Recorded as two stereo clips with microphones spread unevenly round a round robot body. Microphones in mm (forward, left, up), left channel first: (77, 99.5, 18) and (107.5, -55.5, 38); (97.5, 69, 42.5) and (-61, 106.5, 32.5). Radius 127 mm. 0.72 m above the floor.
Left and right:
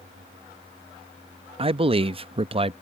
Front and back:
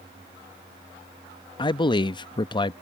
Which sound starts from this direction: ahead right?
A man speaking, at 1.6 s.